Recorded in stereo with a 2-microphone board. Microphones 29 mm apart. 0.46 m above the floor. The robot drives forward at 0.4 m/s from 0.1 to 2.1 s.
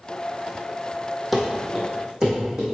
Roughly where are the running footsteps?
Centre.